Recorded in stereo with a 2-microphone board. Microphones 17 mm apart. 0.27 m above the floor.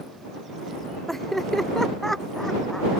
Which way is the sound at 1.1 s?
15° left (ahead or behind).